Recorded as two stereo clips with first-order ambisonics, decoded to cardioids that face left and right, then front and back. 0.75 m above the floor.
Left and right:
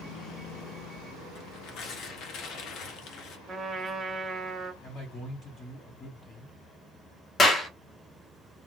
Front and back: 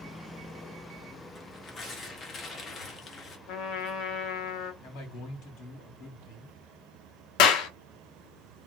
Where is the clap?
20° left, 0.8 m.